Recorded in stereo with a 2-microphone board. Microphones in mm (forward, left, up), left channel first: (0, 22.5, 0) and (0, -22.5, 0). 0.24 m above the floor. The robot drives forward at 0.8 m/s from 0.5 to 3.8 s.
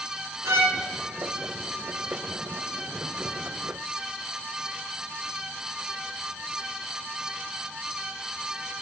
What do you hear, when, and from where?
0.5 s a violin: 75° right (ahead or behind), 0.8 m; by 0.8 s 65° right (ahead or behind), 0.8 m